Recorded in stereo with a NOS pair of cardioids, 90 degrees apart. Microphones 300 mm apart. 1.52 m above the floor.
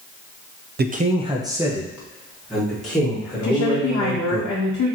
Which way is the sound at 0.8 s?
35° right.